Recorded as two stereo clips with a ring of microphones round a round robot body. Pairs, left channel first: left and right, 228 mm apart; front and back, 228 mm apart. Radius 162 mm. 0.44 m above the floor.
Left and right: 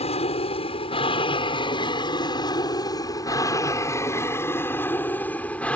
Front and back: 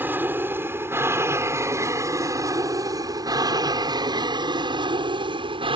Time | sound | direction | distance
0.0 | an aircraft | 110° left | ?